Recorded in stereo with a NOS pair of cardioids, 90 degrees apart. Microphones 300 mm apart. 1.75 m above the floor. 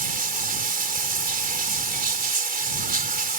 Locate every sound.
0.0 s running water: 30° right